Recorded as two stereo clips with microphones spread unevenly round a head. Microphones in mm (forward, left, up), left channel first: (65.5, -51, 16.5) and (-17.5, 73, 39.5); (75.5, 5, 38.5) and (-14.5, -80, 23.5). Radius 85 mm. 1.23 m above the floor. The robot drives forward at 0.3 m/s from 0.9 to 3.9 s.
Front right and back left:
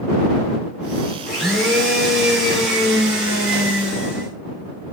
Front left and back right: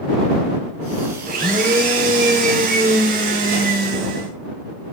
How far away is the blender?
About 2.5 m.